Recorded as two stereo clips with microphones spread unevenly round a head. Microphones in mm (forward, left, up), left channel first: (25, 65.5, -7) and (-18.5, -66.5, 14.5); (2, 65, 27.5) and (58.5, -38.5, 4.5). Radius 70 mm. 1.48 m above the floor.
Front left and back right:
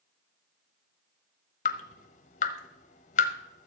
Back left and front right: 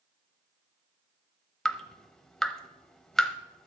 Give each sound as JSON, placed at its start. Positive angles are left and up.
{"t": 1.6, "sound": "dripping", "azimuth_deg": 45, "distance_m": 0.9}